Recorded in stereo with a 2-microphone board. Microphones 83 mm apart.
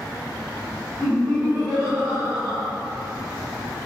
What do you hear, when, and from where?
1.0 s laughter: 15° right (ahead or behind), 0.9 m